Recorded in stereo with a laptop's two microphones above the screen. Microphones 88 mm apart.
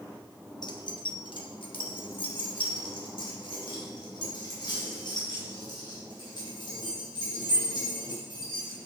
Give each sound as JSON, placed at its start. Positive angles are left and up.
{"t": 0.6, "sound": "keys jangling", "side_deg": 55, "distance_m": 0.8}